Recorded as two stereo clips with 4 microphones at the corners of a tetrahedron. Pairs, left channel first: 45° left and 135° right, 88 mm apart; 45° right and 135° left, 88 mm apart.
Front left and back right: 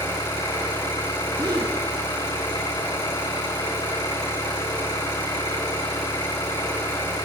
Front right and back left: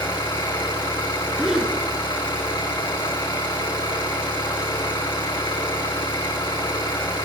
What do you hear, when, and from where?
0.0 s an engine running: 5° left, 5.5 m
1.4 s a gasp: 140° right, 3 m